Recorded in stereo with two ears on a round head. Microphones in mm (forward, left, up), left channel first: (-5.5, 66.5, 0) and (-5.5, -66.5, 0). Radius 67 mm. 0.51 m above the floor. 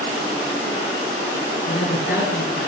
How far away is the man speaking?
About 6.5 m.